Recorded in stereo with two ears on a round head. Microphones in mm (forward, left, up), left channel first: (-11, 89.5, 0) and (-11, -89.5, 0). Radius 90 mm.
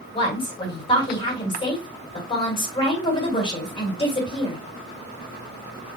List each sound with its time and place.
0.1 s a woman speaking: 25° left (ahead or behind), 2.0 m